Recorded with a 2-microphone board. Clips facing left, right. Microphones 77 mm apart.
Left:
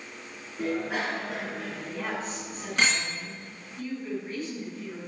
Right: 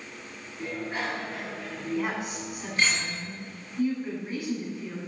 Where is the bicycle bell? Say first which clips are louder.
Left 3 dB; 80° left, 7 m; by 2.9 s 70° left (ahead or behind), 7 m.